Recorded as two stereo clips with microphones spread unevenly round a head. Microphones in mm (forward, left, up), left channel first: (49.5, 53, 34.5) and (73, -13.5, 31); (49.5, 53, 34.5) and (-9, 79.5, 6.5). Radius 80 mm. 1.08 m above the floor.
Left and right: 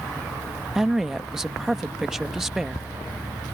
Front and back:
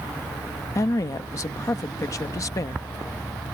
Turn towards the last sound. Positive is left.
turn(degrees=15)